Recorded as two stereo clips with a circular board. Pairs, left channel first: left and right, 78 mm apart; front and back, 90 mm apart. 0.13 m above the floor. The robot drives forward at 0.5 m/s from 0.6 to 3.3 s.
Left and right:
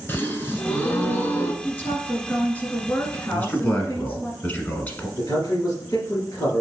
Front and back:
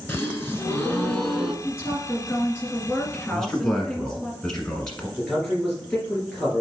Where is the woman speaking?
35° left, 2 m; by 4.3 s 60° left, 1.8 m.